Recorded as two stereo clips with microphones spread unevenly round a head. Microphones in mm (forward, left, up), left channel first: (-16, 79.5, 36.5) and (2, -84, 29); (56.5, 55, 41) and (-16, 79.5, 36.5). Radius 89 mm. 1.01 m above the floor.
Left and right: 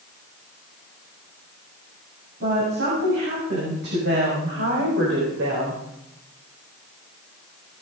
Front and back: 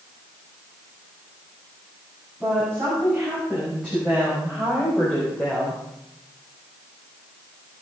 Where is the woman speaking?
110° right, 9 m; by 5.8 s 95° right, 4.5 m.